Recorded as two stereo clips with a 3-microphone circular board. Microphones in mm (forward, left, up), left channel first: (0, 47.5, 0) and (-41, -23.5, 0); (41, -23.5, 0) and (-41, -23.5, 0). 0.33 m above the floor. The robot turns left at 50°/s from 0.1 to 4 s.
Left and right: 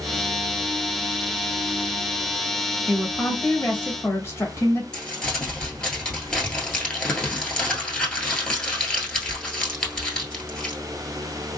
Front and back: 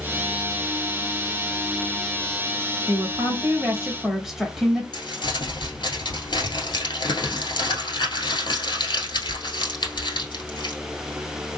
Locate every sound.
2.9 s a woman speaking: 150° left, 1.2 m; by 4.8 s 95° left, 1.2 m
4.9 s crumpling: 25° right, 1.2 m